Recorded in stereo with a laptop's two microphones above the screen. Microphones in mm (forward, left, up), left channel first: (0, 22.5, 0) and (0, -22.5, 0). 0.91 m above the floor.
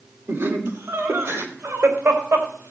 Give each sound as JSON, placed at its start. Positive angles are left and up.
{"t": 0.3, "sound": "laughter", "side_deg": -75, "distance_m": 2.5}